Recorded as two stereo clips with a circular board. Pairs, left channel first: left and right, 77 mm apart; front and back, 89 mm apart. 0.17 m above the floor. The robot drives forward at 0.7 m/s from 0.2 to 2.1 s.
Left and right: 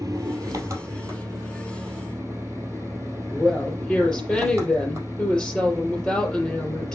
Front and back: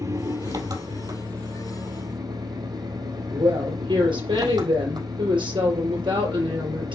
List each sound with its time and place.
0.0 s an engine running: 135° right, 2.5 m; by 7.0 s 150° right, 3.5 m
3.3 s a woman speaking: 175° left, 4.5 m